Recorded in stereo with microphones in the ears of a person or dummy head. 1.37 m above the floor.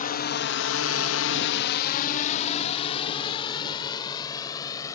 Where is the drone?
35° left (ahead or behind); by 5.0 s 30° left (ahead or behind).